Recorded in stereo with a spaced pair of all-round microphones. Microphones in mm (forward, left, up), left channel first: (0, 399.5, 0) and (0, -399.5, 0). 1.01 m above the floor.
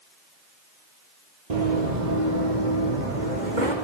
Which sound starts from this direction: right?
Running footsteps, at 1.5 s.